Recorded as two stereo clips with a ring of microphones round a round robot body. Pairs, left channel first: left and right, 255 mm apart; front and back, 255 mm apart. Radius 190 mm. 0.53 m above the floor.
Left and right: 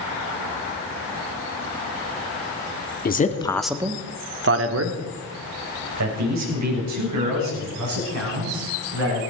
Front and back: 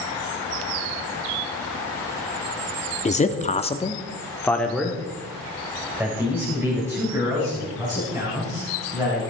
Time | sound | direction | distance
3.0 | a man speaking | 55° left | 1.4 m